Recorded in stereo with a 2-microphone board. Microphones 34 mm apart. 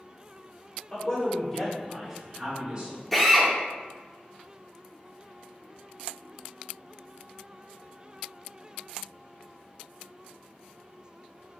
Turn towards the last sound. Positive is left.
turn(degrees=5)  # may be behind; listen again after turning